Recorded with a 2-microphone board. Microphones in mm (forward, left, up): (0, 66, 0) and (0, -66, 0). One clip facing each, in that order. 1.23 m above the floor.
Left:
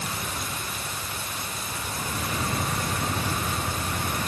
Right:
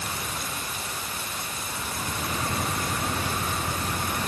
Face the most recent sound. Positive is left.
No sound to turn to.